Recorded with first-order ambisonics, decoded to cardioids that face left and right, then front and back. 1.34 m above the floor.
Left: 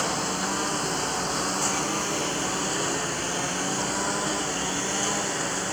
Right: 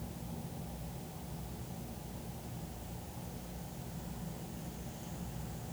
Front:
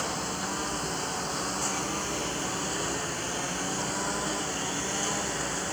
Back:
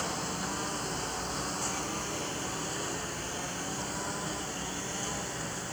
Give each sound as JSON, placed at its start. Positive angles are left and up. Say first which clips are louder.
{"t": 0.0, "sound": "a lawn mower", "louder": "left 22 dB, front 3 dB", "azimuth_deg": 80}